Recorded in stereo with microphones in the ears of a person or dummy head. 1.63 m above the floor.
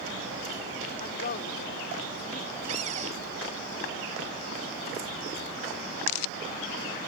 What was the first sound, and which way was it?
A woman speaking, 50° left (ahead or behind).